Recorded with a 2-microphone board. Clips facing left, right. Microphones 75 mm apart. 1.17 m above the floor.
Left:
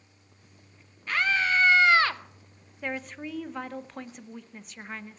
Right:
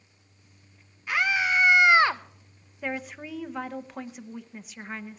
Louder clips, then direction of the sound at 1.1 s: Right 1 dB; 10° right (ahead or behind).